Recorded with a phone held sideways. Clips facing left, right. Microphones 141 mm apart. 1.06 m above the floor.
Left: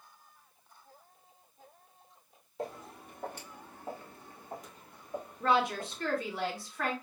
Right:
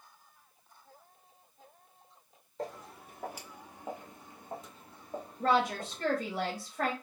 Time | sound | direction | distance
2.6 | footsteps | 5° left (ahead or behind) | 1.2 m
5.4 | a woman speaking | 55° right (ahead or behind) | 1.2 m